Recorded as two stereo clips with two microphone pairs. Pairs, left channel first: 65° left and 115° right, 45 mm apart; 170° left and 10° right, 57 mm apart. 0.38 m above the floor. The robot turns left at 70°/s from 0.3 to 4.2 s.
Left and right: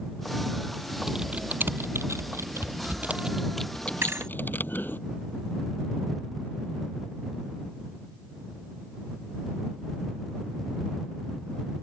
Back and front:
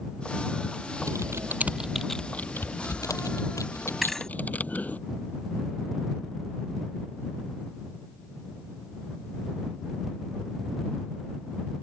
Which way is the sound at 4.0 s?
95° right.